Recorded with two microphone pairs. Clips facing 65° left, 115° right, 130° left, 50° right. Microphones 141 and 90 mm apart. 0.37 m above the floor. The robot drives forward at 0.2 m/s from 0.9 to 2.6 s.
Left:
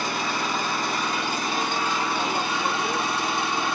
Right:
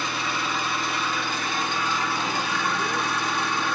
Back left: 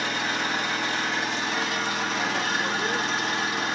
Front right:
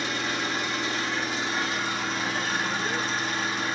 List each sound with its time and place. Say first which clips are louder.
0.0 s an engine running: left 2 dB, back left 2 dB; 110° left, 1.4 m; by 3.8 s 125° left, 1.5 m